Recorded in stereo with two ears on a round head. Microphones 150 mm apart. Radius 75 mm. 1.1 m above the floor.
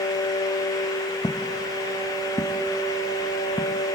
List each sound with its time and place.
1.2 s footsteps: 20° left (ahead or behind)